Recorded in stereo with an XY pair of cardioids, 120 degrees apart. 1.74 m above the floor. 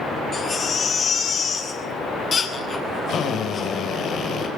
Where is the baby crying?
30° left, 8.5 m.